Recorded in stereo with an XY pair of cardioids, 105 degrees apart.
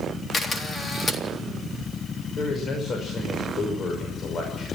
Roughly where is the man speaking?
Ahead left.